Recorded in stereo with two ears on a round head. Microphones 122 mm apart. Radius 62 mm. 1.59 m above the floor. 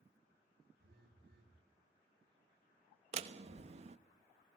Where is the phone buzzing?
80° right, 4.5 m.